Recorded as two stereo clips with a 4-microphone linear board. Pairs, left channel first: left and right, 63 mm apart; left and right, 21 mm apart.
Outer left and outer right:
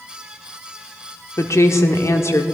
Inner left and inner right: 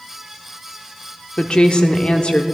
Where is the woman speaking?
45° left (ahead or behind), 1.0 m.